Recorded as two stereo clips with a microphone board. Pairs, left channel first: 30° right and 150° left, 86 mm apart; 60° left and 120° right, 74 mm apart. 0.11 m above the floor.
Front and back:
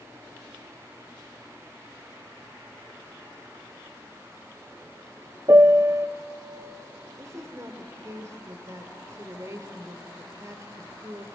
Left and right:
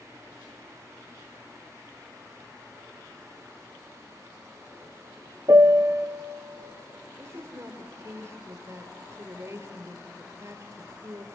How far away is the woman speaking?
About 2.5 m.